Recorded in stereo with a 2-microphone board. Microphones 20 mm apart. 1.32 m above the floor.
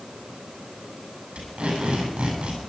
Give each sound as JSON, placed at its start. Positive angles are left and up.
{"t": 1.4, "sound": "tape being pulled", "side_deg": -85, "distance_m": 7.0}